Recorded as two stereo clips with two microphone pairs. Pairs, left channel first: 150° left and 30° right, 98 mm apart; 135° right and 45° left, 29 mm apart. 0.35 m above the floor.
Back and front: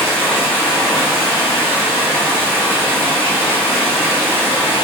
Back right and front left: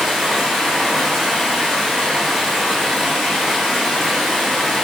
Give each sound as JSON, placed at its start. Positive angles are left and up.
{"t": 0.0, "sound": "running water", "azimuth_deg": 140, "distance_m": 1.1}